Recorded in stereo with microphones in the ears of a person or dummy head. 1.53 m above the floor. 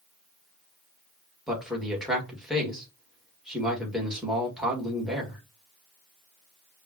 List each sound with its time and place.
1.5 s a man speaking: centre (ahead or behind), 1.7 m